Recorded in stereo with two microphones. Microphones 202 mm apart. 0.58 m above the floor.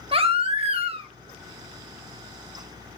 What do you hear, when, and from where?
0.1 s a baby crying: 30° right (ahead or behind), 1.0 m